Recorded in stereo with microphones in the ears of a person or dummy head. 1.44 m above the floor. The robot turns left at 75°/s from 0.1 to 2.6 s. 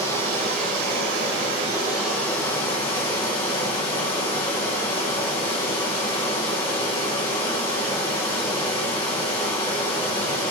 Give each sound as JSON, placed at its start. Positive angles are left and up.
{"t": 0.0, "sound": "running water", "azimuth_deg": -35, "distance_m": 1.1}